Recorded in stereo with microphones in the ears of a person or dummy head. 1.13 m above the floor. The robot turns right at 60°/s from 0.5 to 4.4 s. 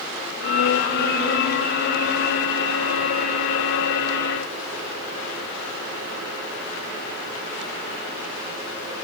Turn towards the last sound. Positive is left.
No sound to turn to.